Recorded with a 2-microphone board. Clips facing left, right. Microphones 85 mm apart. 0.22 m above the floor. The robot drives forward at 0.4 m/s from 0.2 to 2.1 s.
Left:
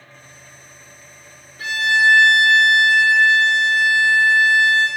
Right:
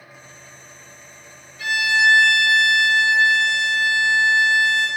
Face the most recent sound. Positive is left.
turn(degrees=45)  # may be behind; listen again after turning